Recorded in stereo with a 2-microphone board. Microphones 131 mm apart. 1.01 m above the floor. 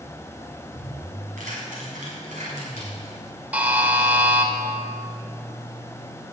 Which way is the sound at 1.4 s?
90° right.